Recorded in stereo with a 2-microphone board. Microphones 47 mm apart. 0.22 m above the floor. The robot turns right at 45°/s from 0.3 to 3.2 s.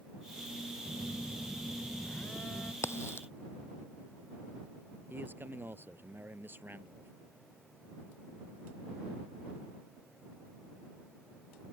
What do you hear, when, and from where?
0.8 s a phone buzzing: 30° right; by 2.7 s 55° left
2.8 s a crack: 75° left (ahead or behind); by 3.3 s 60° left (ahead or behind)
5.1 s a man speaking: 50° right (ahead or behind)